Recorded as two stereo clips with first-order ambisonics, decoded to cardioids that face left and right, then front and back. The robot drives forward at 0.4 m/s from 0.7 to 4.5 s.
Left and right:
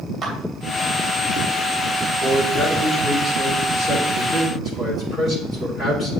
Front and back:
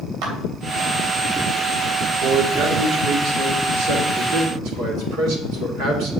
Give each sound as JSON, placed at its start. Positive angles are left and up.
{"t": 0.2, "sound": "a clap", "azimuth_deg": -160, "distance_m": 3.0}
{"t": 2.2, "sound": "a man speaking", "azimuth_deg": 165, "distance_m": 2.5}